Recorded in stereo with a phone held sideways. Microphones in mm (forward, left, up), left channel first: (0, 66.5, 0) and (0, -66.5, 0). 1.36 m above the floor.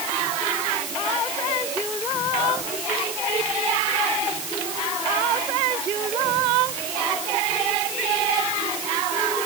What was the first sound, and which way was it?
Only background noise.